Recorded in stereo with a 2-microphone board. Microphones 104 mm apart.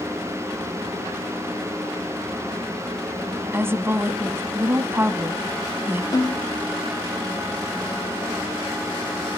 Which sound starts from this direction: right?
A woman speaking, at 3.5 s.